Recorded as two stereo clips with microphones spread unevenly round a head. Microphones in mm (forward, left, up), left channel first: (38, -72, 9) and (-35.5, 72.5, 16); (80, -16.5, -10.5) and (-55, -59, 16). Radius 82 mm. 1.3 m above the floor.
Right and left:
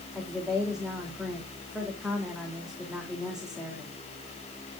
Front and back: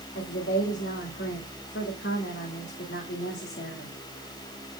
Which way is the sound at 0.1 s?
30° left.